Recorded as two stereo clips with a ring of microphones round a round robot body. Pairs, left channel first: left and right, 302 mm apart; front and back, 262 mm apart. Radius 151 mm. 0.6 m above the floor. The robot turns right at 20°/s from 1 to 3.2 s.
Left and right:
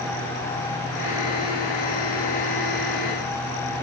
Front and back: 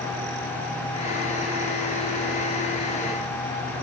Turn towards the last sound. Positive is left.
No sound to turn to.